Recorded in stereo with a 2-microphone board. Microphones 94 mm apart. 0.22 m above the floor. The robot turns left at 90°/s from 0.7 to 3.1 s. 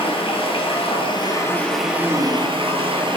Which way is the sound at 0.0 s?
95° left.